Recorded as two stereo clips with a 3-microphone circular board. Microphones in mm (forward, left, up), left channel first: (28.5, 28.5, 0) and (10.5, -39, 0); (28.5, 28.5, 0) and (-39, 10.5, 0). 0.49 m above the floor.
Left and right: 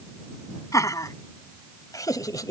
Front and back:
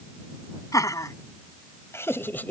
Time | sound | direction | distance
0.7 | laughter | 40° left | ?